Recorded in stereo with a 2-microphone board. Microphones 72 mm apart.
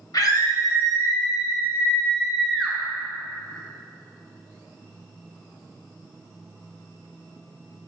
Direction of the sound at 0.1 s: 60° left (ahead or behind).